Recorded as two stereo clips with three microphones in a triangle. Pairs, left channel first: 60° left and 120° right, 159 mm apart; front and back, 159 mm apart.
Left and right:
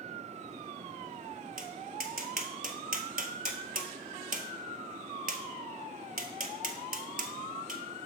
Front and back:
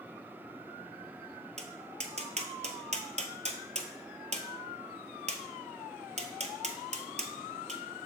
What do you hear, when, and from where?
1.6 s tapping: 140° right, 0.8 m